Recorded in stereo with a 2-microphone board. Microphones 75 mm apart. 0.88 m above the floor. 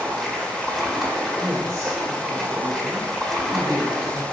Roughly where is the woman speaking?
Right.